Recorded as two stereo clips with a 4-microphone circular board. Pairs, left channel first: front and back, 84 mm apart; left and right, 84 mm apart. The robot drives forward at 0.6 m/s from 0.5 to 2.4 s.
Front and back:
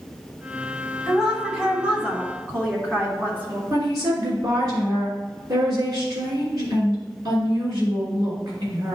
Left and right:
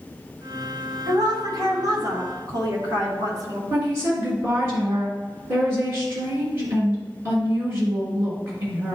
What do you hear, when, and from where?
1.1 s a woman speaking: 90° right, 2.5 m; by 3.6 s 115° right, 2.5 m
3.7 s a woman speaking: 140° right, 3 m